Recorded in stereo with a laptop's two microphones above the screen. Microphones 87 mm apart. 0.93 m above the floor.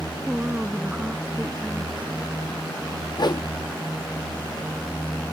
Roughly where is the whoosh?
Left.